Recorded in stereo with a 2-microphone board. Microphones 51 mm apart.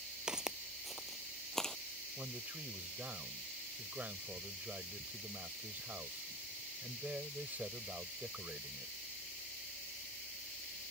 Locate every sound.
0.3 s footsteps: 15° right (ahead or behind); by 1.8 s 10° left (ahead or behind)
2.2 s a man speaking: 40° right (ahead or behind)